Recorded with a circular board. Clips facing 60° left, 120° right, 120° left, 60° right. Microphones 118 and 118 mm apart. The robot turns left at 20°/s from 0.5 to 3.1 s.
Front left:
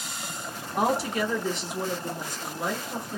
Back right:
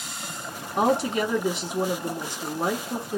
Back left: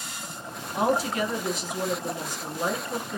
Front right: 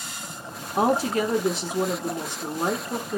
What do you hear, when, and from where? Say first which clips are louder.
0.8 s a woman speaking: back right 3 dB, front right 3 dB; 65° right, 1.0 m; by 3.2 s 115° right, 1.0 m